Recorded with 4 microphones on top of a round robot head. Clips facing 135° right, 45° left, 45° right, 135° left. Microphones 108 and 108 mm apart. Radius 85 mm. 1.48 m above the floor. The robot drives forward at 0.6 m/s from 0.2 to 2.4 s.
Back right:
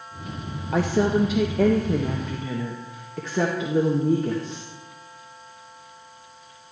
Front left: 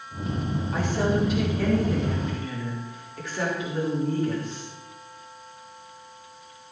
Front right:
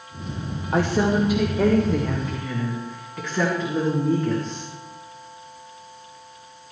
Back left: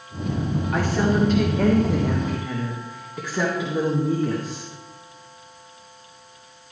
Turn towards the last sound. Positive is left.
turn(degrees=-145)